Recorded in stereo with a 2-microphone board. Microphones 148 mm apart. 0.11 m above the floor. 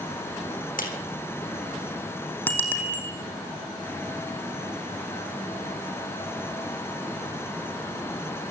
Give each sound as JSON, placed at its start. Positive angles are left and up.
{"t": 0.8, "sound": "a clap", "side_deg": 70, "distance_m": 4.5}
{"t": 2.5, "sound": "a bicycle bell", "side_deg": 10, "distance_m": 3.0}